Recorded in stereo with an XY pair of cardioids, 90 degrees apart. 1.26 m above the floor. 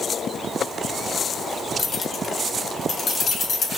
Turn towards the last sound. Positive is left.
turn(degrees=45)